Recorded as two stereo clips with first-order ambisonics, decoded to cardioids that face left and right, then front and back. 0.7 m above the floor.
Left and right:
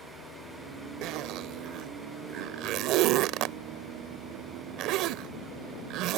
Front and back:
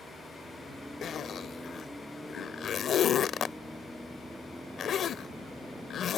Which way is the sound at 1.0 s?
55° right.